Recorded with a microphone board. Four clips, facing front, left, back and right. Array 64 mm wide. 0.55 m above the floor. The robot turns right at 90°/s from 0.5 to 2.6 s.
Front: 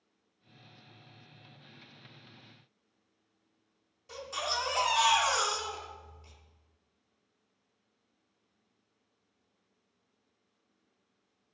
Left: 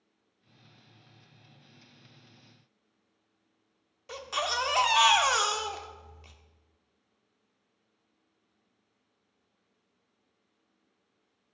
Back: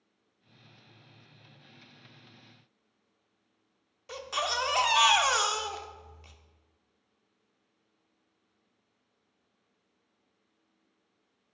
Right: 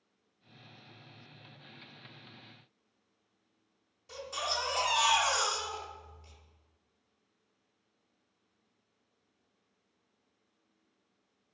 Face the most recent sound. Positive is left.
turn(degrees=130)